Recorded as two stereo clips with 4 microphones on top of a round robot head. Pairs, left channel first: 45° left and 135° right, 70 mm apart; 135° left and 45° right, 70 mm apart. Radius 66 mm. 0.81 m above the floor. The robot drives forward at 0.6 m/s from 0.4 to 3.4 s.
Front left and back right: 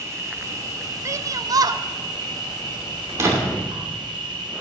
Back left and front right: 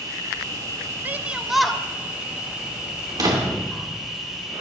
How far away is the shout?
About 0.6 m.